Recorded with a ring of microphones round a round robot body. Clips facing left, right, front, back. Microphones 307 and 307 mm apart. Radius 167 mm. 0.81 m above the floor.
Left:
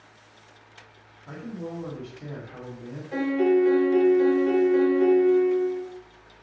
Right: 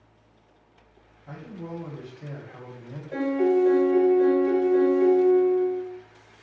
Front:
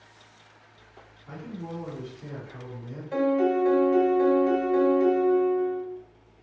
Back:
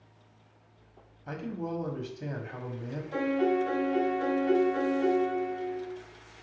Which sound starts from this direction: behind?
A man speaking, at 1.3 s.